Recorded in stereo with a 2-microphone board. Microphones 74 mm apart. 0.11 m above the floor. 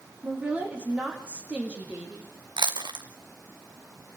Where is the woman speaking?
15° right (ahead or behind), 5 m.